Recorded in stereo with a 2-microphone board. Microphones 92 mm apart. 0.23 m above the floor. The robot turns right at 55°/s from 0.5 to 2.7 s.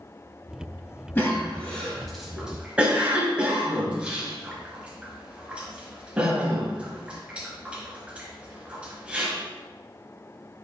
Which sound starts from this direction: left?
A cough, at 1.1 s.